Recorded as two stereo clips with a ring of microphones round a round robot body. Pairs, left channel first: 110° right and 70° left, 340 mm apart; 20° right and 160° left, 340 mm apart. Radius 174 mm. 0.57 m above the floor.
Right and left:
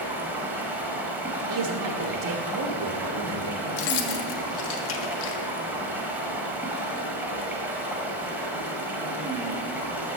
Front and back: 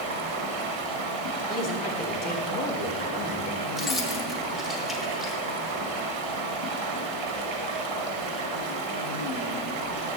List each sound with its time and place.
0.0 s running water: 150° left, 1.1 m
1.5 s a man speaking: 65° left, 0.8 m
3.8 s keys jangling: 115° right, 1.0 m